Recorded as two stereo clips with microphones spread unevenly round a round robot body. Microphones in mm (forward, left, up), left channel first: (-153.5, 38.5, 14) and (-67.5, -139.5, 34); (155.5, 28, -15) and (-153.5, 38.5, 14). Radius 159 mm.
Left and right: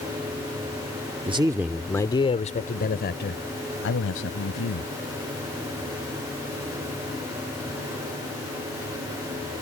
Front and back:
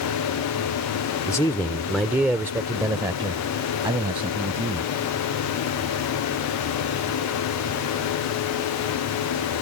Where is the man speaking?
45° right; by 4.9 s 100° left.